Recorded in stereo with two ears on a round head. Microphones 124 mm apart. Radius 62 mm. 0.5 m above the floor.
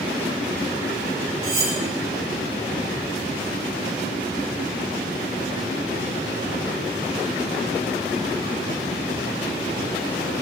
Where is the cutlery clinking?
25° right (ahead or behind), 1.5 m.